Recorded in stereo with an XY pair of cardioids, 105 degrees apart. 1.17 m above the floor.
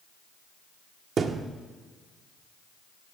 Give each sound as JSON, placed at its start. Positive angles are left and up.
{"t": 1.2, "sound": "a thud", "azimuth_deg": -50, "distance_m": 1.4}